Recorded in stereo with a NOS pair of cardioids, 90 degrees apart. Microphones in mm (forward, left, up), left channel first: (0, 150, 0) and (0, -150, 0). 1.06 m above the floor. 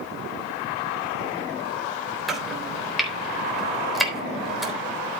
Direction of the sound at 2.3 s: Straight ahead.